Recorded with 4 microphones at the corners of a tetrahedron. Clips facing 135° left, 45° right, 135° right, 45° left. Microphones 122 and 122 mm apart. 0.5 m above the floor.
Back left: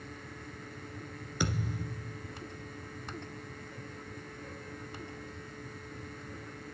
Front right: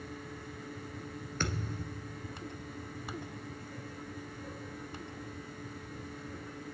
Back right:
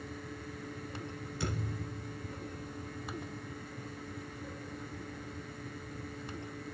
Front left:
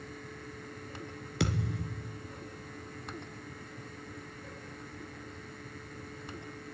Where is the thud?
55° left, 2 m.